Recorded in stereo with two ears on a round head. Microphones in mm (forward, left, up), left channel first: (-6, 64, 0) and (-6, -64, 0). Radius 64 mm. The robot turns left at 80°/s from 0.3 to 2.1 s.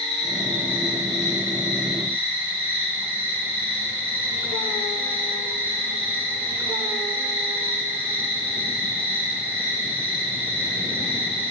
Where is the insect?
130° left, 1.9 m; by 11.5 s 15° right, 1.9 m.